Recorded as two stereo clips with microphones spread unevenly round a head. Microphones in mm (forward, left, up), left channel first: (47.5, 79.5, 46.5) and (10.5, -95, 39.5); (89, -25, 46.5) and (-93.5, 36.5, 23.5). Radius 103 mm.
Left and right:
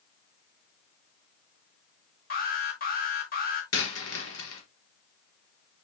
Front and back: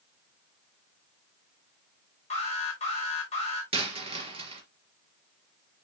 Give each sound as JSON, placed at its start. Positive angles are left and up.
{"t": 2.3, "sound": "an alarm", "azimuth_deg": 40, "distance_m": 6.0}
{"t": 3.7, "sound": "a dropped coin", "azimuth_deg": 95, "distance_m": 4.0}